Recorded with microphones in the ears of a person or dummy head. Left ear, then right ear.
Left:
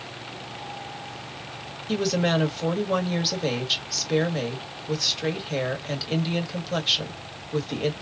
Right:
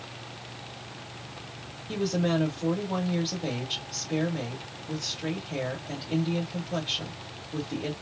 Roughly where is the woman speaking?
Left.